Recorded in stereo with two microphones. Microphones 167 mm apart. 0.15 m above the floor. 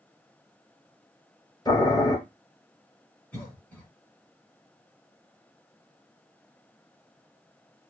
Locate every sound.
1.6 s boiling: 25° left (ahead or behind), 1.5 m
3.3 s a cough: 10° left (ahead or behind), 1.7 m